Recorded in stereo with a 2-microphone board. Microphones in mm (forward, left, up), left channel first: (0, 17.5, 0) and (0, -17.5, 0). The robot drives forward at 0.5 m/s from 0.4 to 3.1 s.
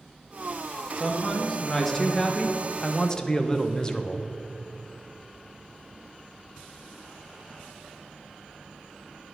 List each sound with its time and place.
1.0 s a man speaking: 10° left (ahead or behind), 1.8 m; by 4.3 s 20° left (ahead or behind), 0.8 m